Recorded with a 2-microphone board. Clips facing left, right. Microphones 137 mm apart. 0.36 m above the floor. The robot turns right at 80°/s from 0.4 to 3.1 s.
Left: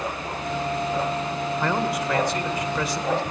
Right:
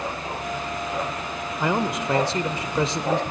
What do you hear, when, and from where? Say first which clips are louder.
1.6 s a man speaking: right 2 dB; 10° right (ahead or behind), 1.2 m; by 3.2 s 15° right (ahead or behind), 1.2 m